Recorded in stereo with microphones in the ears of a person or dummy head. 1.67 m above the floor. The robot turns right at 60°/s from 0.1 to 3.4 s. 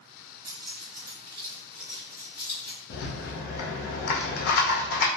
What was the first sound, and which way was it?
Keys jangling, 60° right (ahead or behind).